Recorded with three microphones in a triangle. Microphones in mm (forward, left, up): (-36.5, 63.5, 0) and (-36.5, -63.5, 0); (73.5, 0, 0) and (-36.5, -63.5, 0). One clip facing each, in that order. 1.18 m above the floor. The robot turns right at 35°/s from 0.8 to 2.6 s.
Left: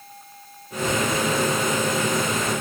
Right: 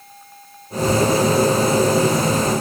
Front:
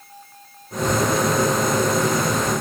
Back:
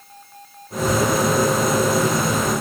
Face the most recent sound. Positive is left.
No sound to turn to.